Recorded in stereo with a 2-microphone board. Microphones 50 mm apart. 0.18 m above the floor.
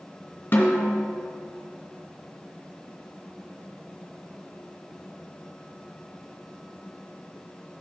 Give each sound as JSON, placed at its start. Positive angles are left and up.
{"t": 0.5, "sound": "a snare drum", "side_deg": 45, "distance_m": 1.8}